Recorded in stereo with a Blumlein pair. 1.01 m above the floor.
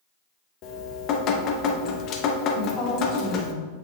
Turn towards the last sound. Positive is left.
turn(degrees=35)